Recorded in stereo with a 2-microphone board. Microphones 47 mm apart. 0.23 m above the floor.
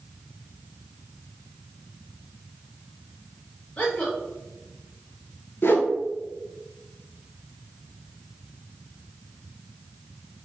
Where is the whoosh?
55° left (ahead or behind), 0.8 m.